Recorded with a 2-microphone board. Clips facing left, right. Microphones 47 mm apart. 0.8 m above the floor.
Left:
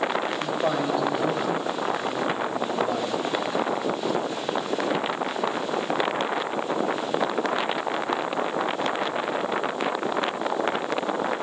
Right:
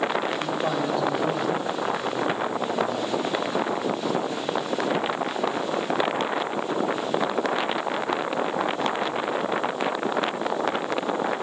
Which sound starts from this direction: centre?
A man speaking, at 0.4 s.